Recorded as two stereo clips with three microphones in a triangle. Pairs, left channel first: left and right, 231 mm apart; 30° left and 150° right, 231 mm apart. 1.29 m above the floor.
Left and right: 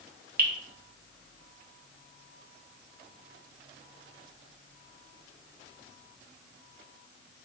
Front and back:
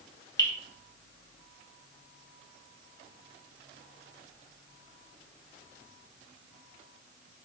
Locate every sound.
0.4 s dripping: 45° right, 1.1 m